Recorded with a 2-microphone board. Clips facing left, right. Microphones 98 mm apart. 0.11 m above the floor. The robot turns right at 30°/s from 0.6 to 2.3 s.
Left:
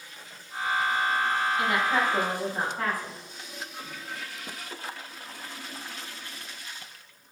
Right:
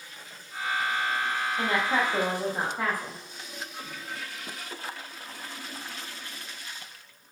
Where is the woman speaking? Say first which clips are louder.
Right 2 dB; 35° right (ahead or behind), 3 m; by 3.2 s 15° right (ahead or behind), 3 m.